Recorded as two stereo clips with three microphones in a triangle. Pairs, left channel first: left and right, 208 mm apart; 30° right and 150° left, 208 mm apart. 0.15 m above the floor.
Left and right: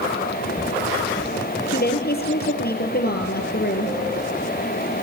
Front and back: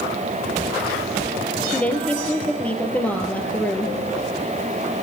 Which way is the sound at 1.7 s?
55° left.